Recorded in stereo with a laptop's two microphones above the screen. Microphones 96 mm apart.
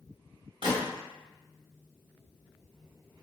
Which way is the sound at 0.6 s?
65° right (ahead or behind).